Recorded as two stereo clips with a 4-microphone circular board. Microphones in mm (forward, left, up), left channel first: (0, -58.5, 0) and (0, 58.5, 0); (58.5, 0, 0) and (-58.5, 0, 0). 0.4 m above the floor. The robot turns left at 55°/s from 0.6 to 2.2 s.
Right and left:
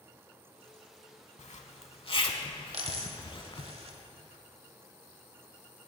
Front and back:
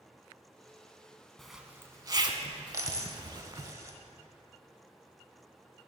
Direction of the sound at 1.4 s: 85° right.